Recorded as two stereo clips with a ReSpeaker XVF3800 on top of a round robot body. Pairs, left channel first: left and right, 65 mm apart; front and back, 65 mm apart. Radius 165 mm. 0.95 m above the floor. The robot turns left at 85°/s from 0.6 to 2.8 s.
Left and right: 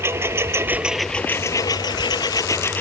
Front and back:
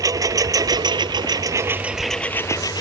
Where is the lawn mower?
145° right; by 2.8 s 25° left.